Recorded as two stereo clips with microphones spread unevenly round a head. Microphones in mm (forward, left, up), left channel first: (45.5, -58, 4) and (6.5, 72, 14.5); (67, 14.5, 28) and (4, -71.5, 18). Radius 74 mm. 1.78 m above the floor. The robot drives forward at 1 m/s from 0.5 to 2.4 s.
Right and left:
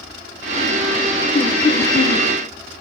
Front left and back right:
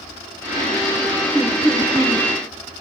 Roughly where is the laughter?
Ahead right.